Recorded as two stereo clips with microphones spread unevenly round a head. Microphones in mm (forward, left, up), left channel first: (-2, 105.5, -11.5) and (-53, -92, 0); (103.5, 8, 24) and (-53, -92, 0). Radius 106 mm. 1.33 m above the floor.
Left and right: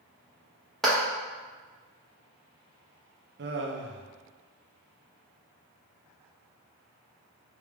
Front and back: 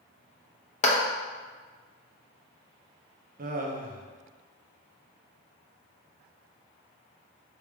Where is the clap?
15° right, 0.9 m.